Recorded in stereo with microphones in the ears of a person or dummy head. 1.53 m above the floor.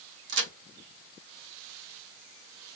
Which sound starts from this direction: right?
A crack, at 0.3 s.